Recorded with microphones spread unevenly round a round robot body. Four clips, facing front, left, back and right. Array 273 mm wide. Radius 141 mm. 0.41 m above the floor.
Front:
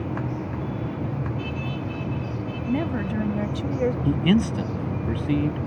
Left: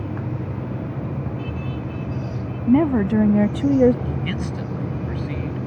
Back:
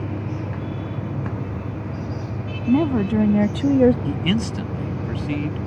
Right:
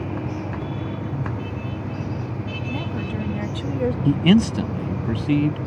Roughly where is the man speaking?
Right.